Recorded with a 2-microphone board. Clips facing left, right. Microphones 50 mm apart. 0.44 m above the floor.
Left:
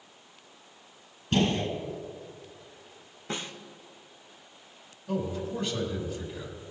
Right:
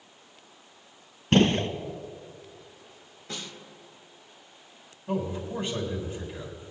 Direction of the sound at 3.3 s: 30° left (ahead or behind).